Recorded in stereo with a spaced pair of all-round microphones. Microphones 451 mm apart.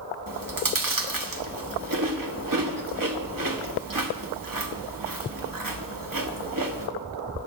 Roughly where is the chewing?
Right.